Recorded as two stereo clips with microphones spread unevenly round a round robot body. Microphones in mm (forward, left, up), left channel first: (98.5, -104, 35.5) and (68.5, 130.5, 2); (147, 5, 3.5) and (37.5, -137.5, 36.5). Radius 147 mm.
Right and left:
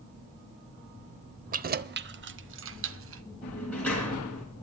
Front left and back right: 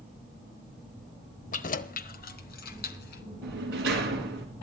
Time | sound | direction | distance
1.5 | keys jangling | 60° left | 0.9 m
3.4 | a sliding door | 170° right | 3 m